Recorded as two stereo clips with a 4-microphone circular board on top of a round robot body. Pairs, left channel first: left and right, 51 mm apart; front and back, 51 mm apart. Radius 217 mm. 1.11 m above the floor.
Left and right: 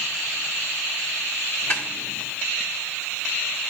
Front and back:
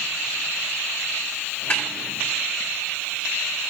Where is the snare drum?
45° left, 1.0 m.